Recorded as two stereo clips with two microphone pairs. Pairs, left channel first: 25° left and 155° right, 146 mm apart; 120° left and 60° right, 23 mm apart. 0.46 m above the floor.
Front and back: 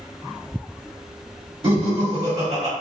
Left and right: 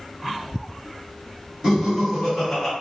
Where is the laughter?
120° right, 1.4 m; by 2.7 s 160° right, 1.3 m.